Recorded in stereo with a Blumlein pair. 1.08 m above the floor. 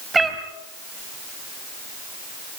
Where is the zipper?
No zipper in this recording.